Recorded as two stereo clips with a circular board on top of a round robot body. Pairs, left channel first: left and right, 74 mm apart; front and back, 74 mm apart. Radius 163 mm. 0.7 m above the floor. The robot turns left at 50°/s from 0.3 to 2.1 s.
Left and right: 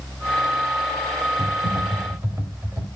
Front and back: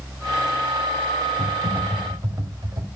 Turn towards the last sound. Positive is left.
turn(degrees=-140)